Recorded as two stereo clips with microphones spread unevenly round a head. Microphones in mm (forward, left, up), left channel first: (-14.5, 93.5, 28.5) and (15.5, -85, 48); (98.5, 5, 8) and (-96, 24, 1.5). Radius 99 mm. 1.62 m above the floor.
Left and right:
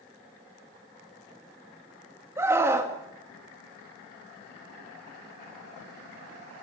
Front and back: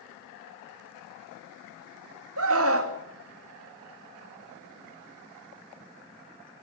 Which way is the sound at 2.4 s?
160° right.